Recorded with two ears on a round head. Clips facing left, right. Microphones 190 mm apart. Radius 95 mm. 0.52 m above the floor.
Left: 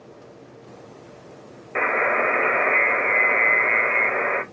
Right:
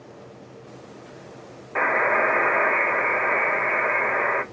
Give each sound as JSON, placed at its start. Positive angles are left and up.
{"t": 1.8, "sound": "a buzzer", "side_deg": 30, "distance_m": 1.0}